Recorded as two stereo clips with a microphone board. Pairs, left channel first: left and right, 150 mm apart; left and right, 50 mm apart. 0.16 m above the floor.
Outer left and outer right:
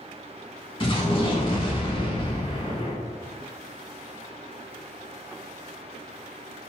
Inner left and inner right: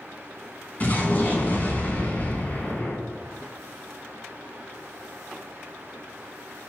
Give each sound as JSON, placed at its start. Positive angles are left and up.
{"t": 0.8, "sound": "an explosion", "side_deg": 30, "distance_m": 0.6}